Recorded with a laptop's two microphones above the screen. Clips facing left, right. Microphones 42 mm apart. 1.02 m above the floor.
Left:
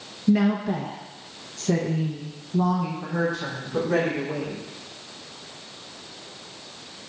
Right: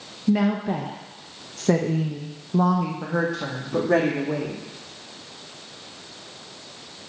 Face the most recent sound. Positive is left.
turn(degrees=-75)  # may be behind; listen again after turning